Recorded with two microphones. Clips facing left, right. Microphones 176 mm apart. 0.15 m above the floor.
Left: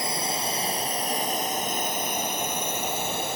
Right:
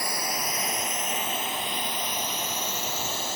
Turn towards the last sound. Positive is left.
turn(degrees=60)  # may be behind; listen again after turning